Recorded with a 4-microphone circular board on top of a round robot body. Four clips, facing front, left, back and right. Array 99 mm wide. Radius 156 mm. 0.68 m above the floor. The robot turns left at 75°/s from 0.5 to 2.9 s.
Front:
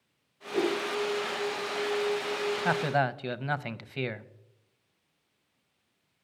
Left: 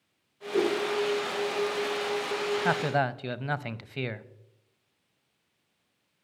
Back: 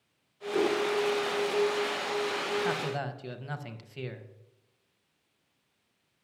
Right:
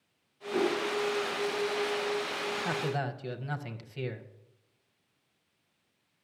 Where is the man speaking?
60° left, 0.8 m; by 4.3 s 45° left, 0.8 m.